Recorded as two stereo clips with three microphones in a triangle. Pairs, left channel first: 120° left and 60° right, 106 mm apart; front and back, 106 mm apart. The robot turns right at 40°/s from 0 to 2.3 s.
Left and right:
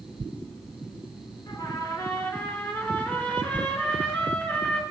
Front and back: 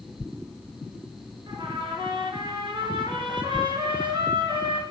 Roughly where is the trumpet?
Behind left.